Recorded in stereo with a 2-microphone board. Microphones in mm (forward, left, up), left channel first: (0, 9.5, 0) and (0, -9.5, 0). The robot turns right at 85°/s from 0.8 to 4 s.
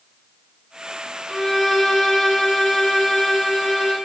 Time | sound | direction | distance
1.3 | a violin | centre (ahead or behind) | 1.7 m